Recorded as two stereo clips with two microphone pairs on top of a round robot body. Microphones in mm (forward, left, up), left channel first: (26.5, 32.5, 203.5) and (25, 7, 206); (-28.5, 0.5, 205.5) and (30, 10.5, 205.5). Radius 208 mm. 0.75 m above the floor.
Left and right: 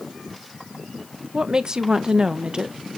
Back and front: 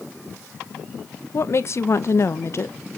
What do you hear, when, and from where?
1.3 s a woman speaking: 150° right, 0.8 m